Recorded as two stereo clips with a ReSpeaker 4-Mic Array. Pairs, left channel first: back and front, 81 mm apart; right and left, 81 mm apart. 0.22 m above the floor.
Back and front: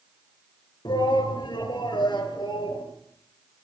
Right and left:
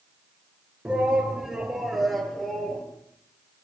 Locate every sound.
0.8 s a shout: 165° left, 3.5 m; by 2.9 s 175° right, 4 m